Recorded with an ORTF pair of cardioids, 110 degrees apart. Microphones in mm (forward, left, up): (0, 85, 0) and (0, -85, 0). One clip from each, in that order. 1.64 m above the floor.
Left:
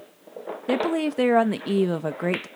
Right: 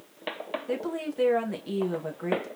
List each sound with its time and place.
0.7 s a woman speaking: 45° left, 0.6 m